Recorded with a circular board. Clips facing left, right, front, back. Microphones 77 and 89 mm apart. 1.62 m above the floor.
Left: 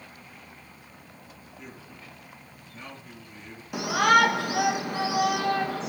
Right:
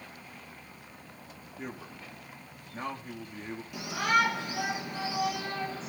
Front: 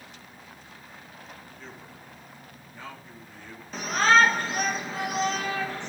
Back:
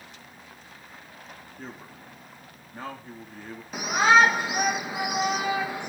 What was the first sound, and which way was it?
A man speaking, 135° right.